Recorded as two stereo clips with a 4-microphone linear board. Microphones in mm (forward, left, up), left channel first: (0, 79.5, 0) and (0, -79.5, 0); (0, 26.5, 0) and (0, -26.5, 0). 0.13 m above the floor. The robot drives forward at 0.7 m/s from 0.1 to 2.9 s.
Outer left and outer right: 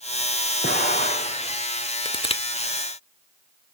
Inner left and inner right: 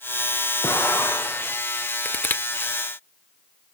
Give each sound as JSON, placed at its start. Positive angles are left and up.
{"t": 0.6, "sound": "an explosion", "side_deg": 80, "distance_m": 6.5}
{"t": 2.0, "sound": "crushing", "side_deg": 30, "distance_m": 0.7}